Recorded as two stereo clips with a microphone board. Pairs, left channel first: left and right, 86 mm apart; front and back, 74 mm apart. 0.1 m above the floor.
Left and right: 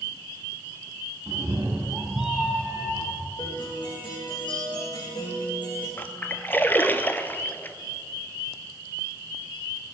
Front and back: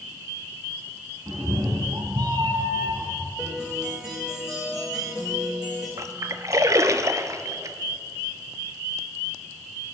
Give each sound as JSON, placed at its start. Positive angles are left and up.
{"t": 1.3, "sound": "a cat meowing", "azimuth_deg": -140, "distance_m": 1.9}
{"t": 3.4, "sound": "a guitar", "azimuth_deg": 100, "distance_m": 5.0}
{"t": 6.0, "sound": "a splash", "azimuth_deg": 150, "distance_m": 0.6}